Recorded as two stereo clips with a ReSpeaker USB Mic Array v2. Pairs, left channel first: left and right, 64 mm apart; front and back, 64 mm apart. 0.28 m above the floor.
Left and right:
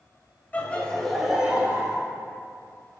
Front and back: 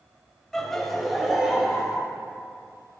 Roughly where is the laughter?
Left.